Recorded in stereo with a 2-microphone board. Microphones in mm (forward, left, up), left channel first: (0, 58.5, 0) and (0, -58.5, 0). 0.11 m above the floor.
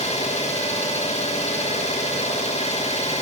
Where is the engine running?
65° left (ahead or behind), 7 m.